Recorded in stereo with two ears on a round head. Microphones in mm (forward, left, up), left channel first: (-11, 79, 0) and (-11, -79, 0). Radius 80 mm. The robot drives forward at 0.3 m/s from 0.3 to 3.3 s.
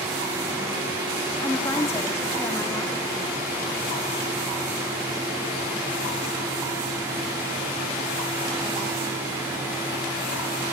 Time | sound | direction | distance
1.4 | a woman speaking | 15° left (ahead or behind) | 1.6 m